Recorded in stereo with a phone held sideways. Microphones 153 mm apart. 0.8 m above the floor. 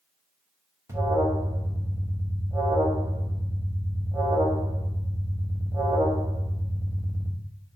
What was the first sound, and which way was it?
An alarm, 20° right (ahead or behind).